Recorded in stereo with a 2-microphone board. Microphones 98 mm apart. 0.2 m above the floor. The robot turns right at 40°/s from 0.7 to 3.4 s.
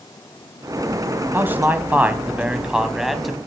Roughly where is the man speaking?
Right.